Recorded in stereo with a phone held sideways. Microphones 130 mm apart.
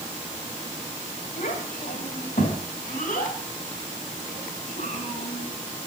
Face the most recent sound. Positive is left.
turn(degrees=80)